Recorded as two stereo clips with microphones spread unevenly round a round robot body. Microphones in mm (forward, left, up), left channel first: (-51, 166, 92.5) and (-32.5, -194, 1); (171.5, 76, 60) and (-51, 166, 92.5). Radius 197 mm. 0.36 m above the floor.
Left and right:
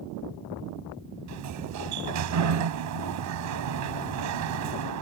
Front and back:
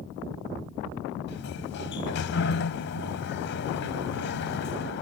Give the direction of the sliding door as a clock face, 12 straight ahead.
2 o'clock.